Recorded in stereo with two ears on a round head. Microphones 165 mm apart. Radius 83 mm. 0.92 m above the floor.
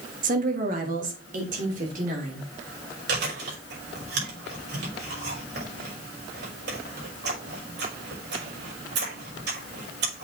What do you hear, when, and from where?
0.2 s a woman speaking: 50° right (ahead or behind), 1.6 m; by 2.5 s 45° right (ahead or behind), 3.5 m
3.1 s chewing: 65° right (ahead or behind), 5.5 m